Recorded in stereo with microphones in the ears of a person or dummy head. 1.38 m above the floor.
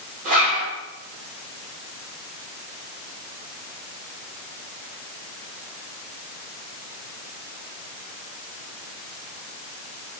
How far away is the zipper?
About 3 m.